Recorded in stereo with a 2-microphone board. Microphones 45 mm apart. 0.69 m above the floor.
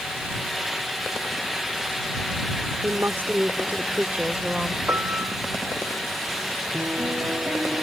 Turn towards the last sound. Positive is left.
turn(degrees=-55)  # may be behind; listen again after turning